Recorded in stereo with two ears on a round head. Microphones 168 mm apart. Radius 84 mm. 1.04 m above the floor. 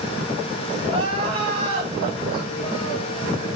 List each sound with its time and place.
0.8 s crying: 30° right (ahead or behind), 4 m